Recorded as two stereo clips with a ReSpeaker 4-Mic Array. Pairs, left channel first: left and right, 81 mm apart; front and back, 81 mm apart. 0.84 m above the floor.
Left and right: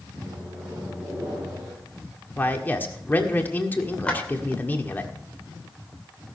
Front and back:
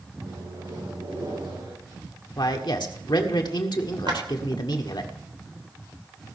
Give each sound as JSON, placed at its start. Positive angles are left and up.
{"t": 0.2, "sound": "a microwave", "azimuth_deg": -170, "distance_m": 9.0}
{"t": 2.4, "sound": "a man speaking", "azimuth_deg": 25, "distance_m": 1.7}
{"t": 4.1, "sound": "a clap", "azimuth_deg": 165, "distance_m": 3.0}